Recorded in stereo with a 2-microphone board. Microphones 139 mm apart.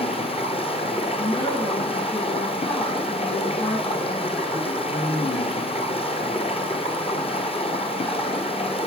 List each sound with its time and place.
0.0 s running water: 45° left (ahead or behind), 1.7 m
1.2 s a woman speaking: 40° left (ahead or behind), 6 m